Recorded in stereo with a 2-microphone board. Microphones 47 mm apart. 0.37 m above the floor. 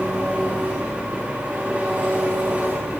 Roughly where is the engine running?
Right.